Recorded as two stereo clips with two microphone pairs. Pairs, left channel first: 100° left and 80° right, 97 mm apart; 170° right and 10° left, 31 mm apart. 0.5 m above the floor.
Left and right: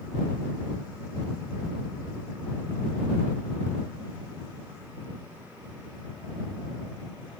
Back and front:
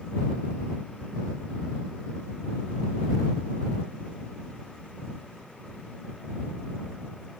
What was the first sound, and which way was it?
Only background noise.